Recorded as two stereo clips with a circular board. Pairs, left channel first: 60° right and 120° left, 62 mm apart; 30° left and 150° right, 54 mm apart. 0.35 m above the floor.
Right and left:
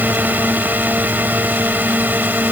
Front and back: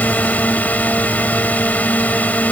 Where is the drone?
70° left.